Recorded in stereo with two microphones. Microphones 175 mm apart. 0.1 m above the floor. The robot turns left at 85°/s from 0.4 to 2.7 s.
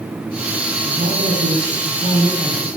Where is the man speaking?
30° right, 5.5 m; by 2.7 s 175° left, 5.5 m.